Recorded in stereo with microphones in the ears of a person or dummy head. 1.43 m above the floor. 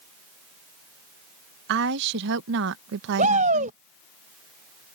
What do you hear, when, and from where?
1.7 s a woman speaking: 70° right (ahead or behind)
3.2 s a shout: 35° right (ahead or behind)